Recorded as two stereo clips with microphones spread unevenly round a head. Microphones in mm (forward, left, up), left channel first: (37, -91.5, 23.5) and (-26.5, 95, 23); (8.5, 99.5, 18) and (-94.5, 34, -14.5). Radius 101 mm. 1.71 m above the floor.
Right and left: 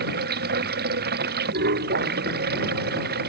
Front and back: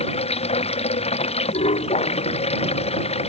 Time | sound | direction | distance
0.0 | running water | 65° left | ?